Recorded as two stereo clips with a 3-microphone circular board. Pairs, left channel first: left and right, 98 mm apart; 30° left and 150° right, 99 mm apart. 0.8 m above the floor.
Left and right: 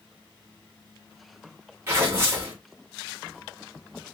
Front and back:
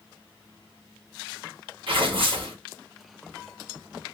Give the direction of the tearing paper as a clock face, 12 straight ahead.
5 o'clock.